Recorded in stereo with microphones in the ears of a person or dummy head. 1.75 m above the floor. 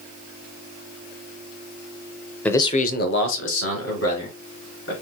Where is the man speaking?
10° left (ahead or behind), 0.5 m; by 4.9 s 75° left (ahead or behind), 2 m.